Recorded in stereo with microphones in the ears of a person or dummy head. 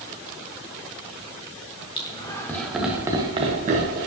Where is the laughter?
25° left (ahead or behind), 1.3 m; by 4.1 s 55° right (ahead or behind), 1.3 m.